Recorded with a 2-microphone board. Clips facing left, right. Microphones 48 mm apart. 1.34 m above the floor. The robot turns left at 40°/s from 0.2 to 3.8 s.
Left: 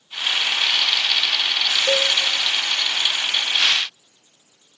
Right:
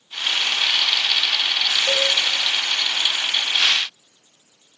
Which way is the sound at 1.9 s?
20° left (ahead or behind).